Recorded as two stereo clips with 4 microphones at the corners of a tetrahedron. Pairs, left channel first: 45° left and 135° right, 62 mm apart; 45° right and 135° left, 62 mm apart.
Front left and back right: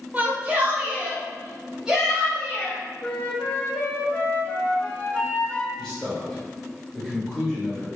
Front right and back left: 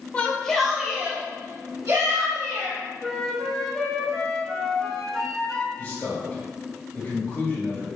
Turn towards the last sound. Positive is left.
turn(degrees=-30)